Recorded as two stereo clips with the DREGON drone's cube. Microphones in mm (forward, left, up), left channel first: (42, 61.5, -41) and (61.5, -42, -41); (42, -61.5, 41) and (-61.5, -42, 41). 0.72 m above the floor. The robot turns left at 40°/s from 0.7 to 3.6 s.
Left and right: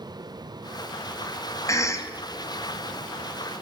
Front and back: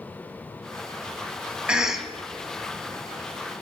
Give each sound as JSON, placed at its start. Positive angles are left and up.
{"t": 1.7, "sound": "a cough", "azimuth_deg": 95, "distance_m": 0.5}